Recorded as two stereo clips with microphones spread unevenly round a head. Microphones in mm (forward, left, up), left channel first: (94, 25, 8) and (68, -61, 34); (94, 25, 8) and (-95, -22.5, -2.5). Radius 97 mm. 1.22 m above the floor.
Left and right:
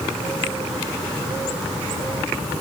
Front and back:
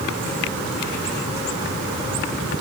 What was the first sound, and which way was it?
Only background noise.